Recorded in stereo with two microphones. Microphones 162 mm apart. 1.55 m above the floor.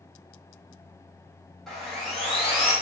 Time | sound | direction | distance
1.7 | sawing | centre (ahead or behind) | 1.0 m